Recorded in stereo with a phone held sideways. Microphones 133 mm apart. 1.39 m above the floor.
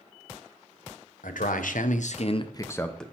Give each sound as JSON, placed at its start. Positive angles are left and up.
{"t": 1.2, "sound": "a man speaking", "side_deg": 80, "distance_m": 0.9}